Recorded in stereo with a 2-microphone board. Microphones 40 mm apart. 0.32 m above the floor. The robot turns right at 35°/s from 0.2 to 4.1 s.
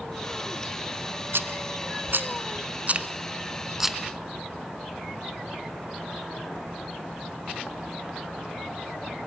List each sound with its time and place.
1.3 s a rattle: 80° right, 1.1 m; by 4.0 s 5° right (ahead or behind), 1.1 m
3.0 s a finger snap: 30° right (ahead or behind), 0.8 m